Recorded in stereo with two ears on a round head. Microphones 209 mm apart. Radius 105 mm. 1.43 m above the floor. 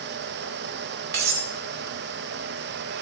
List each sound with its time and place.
1.1 s cutlery clinking: 45° right (ahead or behind), 2.5 m